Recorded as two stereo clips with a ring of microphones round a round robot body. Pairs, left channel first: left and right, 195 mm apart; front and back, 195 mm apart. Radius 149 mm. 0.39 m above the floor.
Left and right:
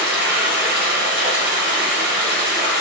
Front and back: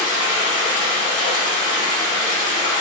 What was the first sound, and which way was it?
Running water, 70° right.